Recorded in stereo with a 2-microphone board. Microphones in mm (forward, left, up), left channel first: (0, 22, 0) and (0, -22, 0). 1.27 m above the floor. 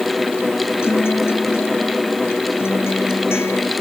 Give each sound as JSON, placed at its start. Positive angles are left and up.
{"t": 0.8, "sound": "a guitar", "side_deg": 75}